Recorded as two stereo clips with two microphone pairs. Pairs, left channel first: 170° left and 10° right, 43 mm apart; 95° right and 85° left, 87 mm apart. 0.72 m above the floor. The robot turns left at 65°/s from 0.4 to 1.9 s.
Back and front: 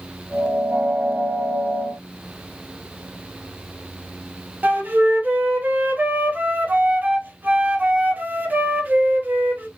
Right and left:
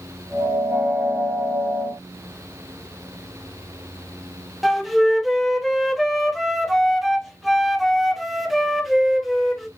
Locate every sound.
4.6 s a flute: 5° right, 0.7 m